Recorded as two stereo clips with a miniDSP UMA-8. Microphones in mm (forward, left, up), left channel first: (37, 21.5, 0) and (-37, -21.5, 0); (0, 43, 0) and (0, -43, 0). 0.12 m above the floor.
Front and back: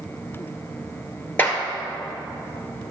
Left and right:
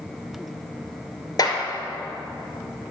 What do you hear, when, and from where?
1.4 s a clap: 90° left, 1.6 m